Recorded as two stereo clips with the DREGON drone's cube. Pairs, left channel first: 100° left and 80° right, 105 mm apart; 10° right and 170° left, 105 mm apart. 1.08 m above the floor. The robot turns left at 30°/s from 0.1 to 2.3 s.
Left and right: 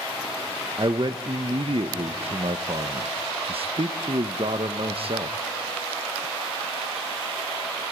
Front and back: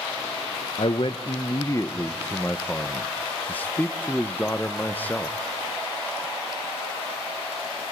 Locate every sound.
0.8 s a man speaking: 40° right, 0.8 m; by 5.4 s 85° right, 0.8 m